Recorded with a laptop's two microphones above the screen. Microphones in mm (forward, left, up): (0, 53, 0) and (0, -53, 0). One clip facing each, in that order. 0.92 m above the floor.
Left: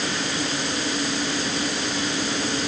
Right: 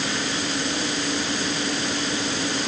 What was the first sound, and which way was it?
Only background noise.